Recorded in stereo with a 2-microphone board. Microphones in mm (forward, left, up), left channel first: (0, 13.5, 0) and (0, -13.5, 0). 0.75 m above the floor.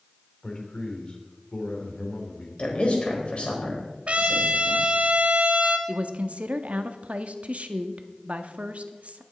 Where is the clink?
I don't hear a clink.